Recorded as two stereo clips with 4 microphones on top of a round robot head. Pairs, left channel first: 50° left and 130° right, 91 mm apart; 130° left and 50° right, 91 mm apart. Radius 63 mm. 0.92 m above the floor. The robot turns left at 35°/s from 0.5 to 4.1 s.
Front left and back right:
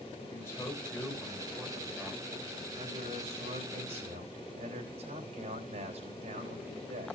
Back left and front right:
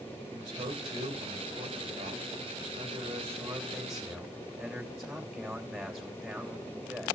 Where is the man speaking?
15° right, 3.5 m; by 7.2 s 140° right, 3.5 m.